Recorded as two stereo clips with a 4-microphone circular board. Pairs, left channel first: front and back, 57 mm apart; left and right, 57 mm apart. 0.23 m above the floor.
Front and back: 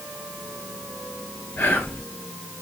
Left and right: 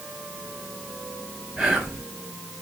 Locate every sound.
1.6 s whispering: 15° right, 1.1 m